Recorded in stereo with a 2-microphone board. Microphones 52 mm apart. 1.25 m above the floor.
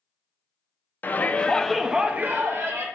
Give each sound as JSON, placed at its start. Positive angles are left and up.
{"t": 1.0, "sound": "a shout", "side_deg": 35, "distance_m": 0.7}